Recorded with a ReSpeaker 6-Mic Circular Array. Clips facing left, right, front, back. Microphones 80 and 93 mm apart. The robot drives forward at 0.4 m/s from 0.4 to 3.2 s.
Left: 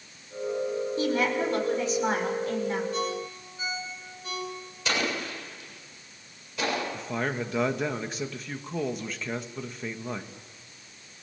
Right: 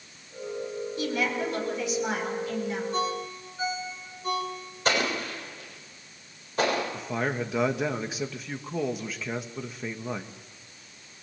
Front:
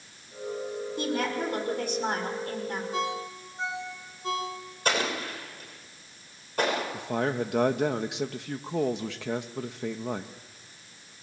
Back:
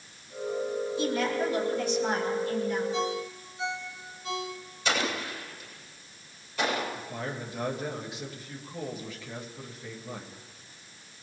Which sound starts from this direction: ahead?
A man speaking, at 6.9 s.